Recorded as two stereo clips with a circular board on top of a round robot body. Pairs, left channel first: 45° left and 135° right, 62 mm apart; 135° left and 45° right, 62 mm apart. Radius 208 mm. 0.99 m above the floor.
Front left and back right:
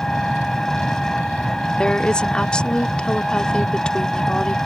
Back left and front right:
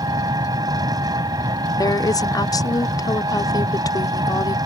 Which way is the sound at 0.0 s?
40° right.